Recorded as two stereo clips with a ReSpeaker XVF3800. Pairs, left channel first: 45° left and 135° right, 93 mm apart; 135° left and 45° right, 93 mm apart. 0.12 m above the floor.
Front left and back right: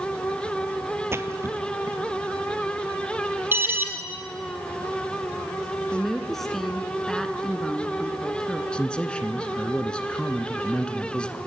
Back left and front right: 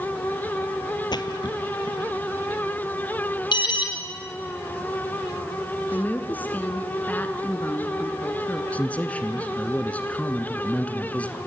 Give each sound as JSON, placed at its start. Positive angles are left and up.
{"t": 1.1, "sound": "a splash", "azimuth_deg": 165, "distance_m": 1.1}
{"t": 3.5, "sound": "an alarm", "azimuth_deg": 160, "distance_m": 3.5}
{"t": 5.9, "sound": "a woman speaking", "azimuth_deg": 125, "distance_m": 1.3}
{"t": 8.7, "sound": "a man speaking", "azimuth_deg": 100, "distance_m": 1.1}